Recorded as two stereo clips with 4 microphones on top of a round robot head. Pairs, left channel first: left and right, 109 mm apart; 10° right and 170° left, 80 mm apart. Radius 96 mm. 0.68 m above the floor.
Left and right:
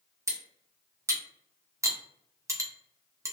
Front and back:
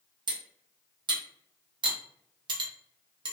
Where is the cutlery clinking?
155° right, 0.6 m.